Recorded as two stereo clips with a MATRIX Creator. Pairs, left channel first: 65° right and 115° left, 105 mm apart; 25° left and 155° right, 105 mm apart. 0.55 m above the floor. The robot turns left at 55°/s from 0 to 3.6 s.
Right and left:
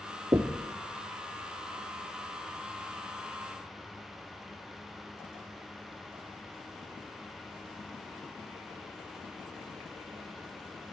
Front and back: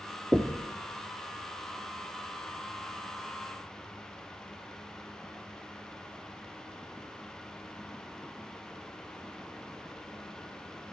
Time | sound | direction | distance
0.3 | knocking | 135° left | 0.7 m